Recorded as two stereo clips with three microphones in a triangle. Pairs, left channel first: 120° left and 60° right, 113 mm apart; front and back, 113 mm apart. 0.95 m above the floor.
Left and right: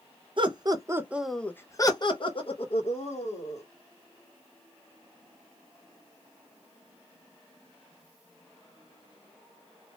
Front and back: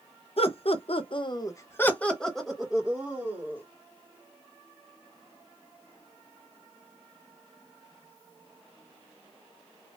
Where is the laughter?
20° right, 0.8 m; by 3.6 s 105° left, 1.6 m.